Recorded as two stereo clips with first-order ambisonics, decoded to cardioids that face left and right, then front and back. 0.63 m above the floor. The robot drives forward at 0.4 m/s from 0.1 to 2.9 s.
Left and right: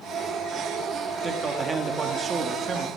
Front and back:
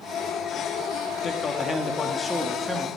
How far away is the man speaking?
About 1.4 m.